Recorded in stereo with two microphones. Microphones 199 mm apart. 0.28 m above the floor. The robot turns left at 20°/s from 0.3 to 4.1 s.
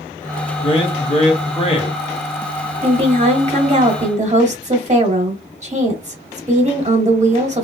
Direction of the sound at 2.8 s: 35° right (ahead or behind).